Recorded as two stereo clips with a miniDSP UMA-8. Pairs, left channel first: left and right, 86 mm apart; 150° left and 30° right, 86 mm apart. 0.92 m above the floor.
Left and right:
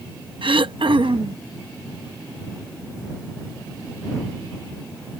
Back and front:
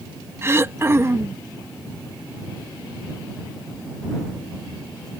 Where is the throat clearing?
90° right.